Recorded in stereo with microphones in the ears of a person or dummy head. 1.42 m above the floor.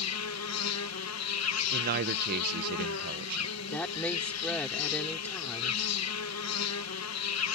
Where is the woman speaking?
10° left (ahead or behind).